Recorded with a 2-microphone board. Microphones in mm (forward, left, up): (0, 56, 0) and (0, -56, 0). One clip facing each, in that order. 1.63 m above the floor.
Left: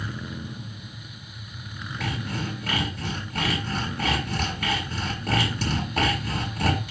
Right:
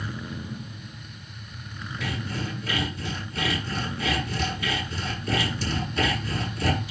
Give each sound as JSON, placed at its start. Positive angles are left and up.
{"t": 2.0, "sound": "sawing", "side_deg": 65, "distance_m": 6.5}